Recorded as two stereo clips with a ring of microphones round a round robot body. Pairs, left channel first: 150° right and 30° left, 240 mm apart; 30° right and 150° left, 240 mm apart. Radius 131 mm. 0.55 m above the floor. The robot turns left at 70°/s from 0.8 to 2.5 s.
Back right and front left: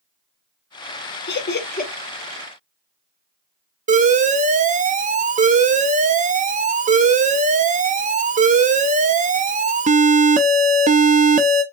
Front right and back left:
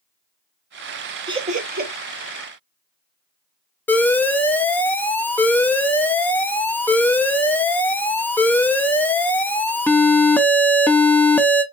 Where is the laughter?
145° right, 1.2 m; by 1.9 s 170° left, 1.2 m.